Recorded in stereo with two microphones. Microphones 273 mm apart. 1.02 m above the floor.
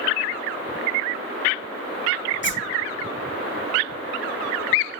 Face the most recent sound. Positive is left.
turn(degrees=45)  # may be behind; listen again after turning